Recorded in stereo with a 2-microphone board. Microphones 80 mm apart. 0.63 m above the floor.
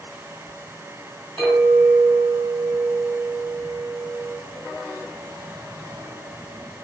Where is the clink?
25° left (ahead or behind), 1.9 m.